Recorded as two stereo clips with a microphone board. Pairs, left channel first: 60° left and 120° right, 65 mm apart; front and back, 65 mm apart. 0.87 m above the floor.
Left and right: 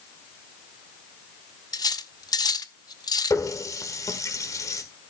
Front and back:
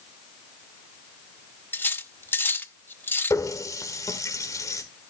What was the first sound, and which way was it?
Cutlery clinking, 55° left.